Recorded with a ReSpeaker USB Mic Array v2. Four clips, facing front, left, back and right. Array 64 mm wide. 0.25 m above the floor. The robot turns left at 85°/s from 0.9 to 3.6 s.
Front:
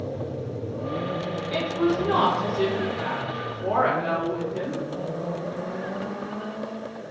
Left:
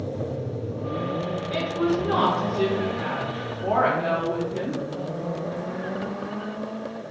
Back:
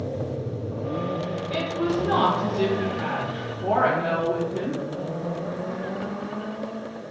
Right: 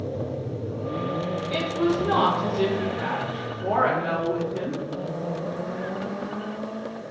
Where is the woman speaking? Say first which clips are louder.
Even, front 2 dB; 65° right, 1.3 m; by 4.8 s 120° left, 1.3 m.